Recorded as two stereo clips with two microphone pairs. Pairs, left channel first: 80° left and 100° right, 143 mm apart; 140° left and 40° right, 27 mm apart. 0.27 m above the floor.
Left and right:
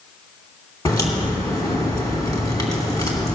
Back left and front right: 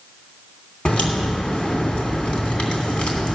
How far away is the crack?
About 2.5 m.